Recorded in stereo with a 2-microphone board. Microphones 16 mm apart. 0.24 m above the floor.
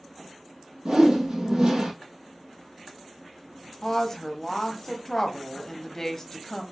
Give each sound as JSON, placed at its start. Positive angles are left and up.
{"t": 0.8, "sound": "a whoosh", "side_deg": -60, "distance_m": 2.5}
{"t": 3.8, "sound": "a woman speaking", "side_deg": 30, "distance_m": 1.0}